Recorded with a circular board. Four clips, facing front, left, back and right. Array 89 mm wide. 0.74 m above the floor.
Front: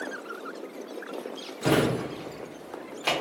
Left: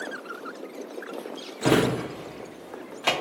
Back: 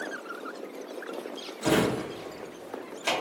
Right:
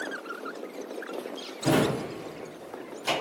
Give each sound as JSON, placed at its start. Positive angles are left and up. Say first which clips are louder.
{"t": 1.6, "sound": "a drawer", "louder": "left 3 dB, front 1 dB", "azimuth_deg": 75, "distance_m": 0.5}